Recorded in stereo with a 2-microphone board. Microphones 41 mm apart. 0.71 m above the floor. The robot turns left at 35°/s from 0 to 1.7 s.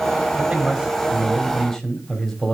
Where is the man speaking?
140° right, 2.5 m; by 2.5 s 175° left, 2.5 m.